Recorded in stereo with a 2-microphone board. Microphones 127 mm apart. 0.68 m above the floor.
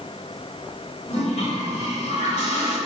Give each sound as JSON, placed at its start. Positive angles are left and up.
{"t": 1.1, "sound": "a toilet flushing", "side_deg": 65, "distance_m": 2.5}